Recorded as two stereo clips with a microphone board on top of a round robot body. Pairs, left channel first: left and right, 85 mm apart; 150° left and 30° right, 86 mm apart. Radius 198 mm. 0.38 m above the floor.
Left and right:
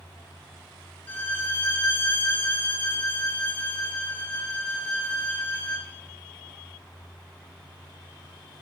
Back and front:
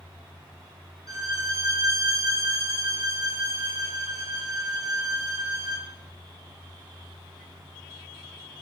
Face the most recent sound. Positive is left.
turn(degrees=20)